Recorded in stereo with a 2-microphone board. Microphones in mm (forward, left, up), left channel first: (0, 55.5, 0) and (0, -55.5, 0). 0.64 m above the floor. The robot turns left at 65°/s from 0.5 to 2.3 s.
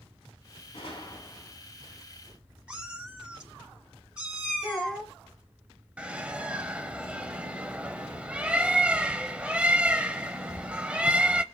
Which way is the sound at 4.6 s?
5° left (ahead or behind).